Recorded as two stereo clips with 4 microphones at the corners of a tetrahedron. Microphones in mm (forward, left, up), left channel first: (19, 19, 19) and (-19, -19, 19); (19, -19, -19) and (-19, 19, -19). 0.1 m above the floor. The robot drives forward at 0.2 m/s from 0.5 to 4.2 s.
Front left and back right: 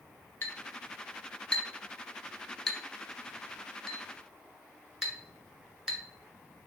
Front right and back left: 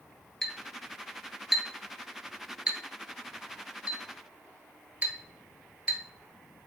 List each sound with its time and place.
0.4 s a clink: 35° left, 0.8 m; by 6.0 s 150° left, 0.9 m